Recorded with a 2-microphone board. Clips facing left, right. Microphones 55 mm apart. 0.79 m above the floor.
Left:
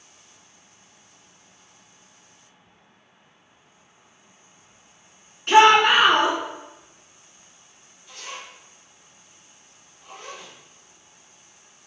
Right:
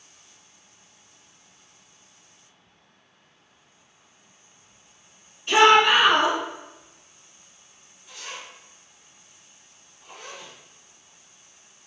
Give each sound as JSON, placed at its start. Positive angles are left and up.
{"t": 5.5, "sound": "a shout", "side_deg": 60, "distance_m": 1.7}
{"t": 8.1, "sound": "a zipper", "side_deg": -10, "distance_m": 1.6}